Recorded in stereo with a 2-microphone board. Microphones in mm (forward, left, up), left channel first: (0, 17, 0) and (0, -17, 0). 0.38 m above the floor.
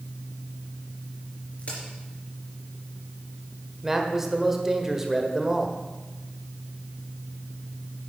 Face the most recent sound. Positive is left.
turn(degrees=-10)  # may be behind; listen again after turning